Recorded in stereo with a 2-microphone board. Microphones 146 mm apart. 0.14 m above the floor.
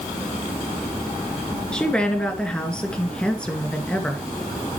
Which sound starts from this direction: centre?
A woman speaking, at 1.7 s.